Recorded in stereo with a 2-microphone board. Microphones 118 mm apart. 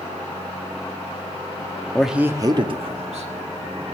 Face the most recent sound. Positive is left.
turn(degrees=-75)  # may be behind; listen again after turning